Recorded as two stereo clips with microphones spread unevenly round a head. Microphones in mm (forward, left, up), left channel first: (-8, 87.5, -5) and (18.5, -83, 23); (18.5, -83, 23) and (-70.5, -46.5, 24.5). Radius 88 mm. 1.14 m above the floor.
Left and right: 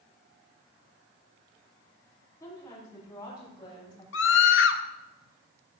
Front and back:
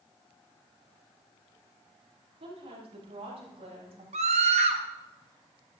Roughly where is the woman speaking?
Behind.